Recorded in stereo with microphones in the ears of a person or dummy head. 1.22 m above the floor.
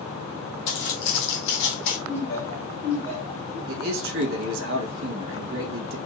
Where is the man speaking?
60° right (ahead or behind), 1.4 m.